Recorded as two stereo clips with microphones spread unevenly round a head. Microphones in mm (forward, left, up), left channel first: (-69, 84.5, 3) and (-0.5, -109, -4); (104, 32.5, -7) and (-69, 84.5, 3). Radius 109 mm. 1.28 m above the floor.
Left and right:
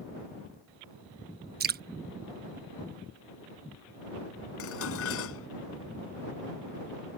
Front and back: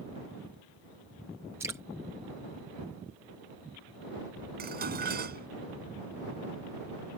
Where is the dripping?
115° right.